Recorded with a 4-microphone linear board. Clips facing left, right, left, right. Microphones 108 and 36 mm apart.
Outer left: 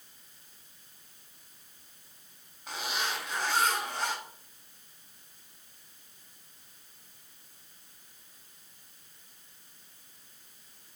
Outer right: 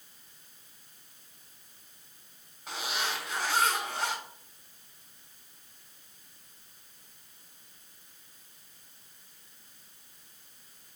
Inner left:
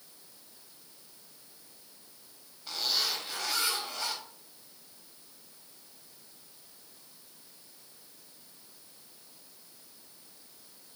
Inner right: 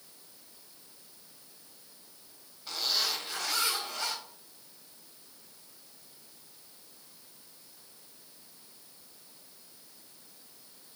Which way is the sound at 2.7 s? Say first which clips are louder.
Even, even; 5° right (ahead or behind).